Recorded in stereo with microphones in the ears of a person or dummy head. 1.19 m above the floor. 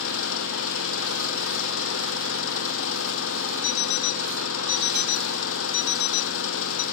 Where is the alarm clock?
55° left (ahead or behind).